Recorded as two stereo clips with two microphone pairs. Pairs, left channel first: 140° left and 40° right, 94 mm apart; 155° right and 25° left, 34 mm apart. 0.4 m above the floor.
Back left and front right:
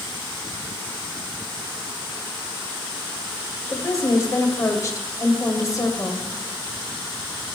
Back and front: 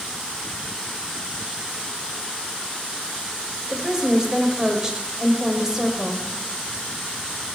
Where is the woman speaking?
90° left, 1.6 m.